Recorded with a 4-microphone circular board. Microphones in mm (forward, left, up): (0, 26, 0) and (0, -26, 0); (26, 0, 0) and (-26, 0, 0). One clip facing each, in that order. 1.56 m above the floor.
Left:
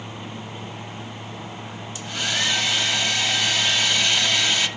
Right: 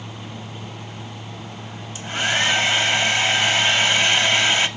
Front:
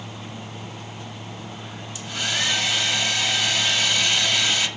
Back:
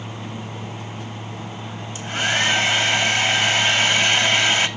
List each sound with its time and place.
1.9 s a hair dryer: 140° right, 1.2 m